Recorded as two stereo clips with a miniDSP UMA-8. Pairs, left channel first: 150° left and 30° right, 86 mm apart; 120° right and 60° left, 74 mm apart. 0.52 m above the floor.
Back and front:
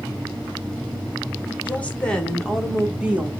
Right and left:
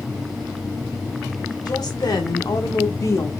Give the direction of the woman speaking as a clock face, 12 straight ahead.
5 o'clock.